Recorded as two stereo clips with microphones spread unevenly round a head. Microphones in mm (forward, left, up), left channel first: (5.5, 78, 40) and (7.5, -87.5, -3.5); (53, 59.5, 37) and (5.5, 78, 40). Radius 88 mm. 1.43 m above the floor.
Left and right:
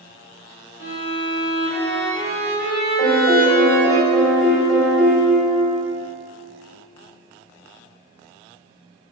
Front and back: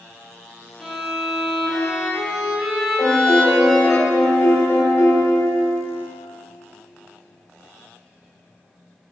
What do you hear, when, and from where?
0.8 s a violin: 75° left, 2.5 m
3.0 s a piano: 15° left, 2.5 m